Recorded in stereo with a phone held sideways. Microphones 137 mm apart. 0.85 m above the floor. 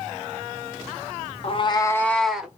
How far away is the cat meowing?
About 0.5 m.